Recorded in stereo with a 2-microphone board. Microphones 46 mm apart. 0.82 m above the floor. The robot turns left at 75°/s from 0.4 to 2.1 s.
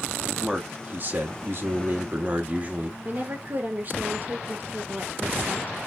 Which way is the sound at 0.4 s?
10° right.